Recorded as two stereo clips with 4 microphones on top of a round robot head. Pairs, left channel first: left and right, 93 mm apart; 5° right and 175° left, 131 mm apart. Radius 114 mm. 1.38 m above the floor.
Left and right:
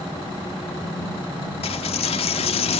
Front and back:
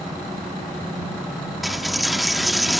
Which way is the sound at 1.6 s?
85° left.